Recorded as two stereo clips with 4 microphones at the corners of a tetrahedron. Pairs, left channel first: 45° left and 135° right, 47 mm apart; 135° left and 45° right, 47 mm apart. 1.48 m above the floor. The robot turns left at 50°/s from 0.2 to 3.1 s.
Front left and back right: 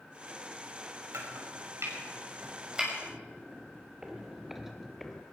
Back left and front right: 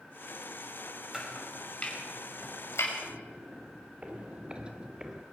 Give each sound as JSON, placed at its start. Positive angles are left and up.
{"t": 1.1, "sound": "chopping", "azimuth_deg": -125, "distance_m": 5.5}
{"t": 3.0, "sound": "footsteps", "azimuth_deg": -75, "distance_m": 2.0}